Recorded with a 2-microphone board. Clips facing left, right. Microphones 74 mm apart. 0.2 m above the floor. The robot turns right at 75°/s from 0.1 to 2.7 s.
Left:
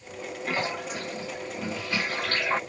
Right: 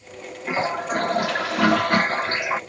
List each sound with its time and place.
0.5 s a toilet flushing: 165° right; by 2.6 s 5° right